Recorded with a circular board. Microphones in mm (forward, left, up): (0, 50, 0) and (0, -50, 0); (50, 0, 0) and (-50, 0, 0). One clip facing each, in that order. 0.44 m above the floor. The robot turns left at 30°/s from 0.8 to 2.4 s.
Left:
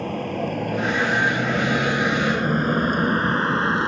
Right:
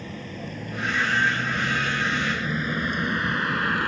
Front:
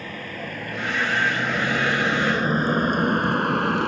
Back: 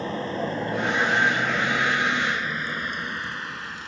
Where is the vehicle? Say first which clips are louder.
Left 10 dB, back 6 dB; 120° left; by 3.9 s 25° left.